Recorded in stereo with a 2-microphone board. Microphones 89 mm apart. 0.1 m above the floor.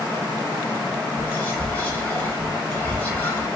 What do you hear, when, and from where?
1.2 s whispering: 20° left (ahead or behind), 1.2 m